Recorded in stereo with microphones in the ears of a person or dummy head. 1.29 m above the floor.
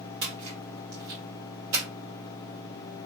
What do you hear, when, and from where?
0.2 s a splash: 65° right (ahead or behind), 1.6 m